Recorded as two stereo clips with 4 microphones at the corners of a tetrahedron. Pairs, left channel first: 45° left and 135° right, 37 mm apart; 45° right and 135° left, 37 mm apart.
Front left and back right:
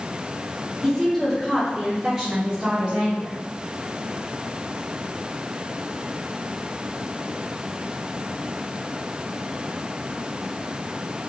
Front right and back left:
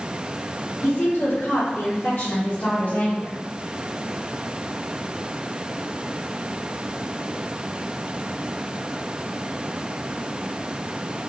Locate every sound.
0.8 s a woman speaking: 45° right, 1.9 m; by 3.4 s 80° right, 2.5 m